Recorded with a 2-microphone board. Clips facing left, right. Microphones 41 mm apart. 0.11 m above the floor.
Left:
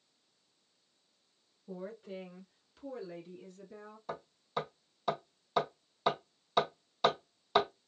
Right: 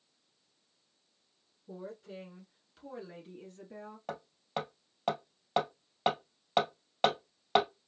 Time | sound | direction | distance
1.7 | a woman speaking | 30° left (ahead or behind) | 1.4 m
4.1 | hammering | 55° right (ahead or behind) | 1.9 m